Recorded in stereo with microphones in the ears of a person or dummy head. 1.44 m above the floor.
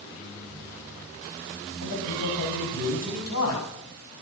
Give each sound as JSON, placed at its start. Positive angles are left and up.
{"t": 1.8, "sound": "a man speaking", "side_deg": 75, "distance_m": 9.5}